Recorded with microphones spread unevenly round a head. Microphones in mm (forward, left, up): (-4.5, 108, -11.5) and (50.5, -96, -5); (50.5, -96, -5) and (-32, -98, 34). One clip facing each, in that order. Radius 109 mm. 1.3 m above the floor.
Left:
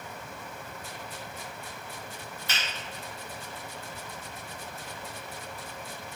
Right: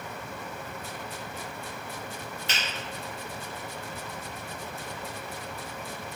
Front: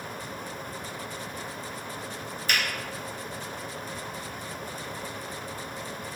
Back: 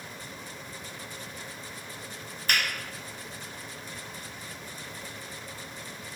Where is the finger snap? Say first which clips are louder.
Right 1 dB, even; 150° right, 1.3 m.